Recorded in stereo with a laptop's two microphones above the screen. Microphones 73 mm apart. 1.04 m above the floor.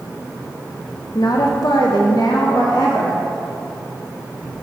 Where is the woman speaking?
55° left (ahead or behind), 0.6 m; by 3.2 s 70° left (ahead or behind), 1.5 m.